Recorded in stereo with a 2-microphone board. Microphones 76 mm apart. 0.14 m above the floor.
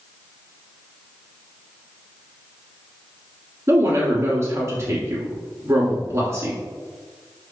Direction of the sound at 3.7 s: 35° right (ahead or behind).